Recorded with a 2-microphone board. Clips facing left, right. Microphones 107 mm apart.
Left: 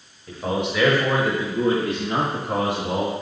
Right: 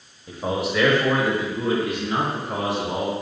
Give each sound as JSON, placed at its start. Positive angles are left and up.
{"t": 0.3, "sound": "a man speaking", "side_deg": -20, "distance_m": 0.9}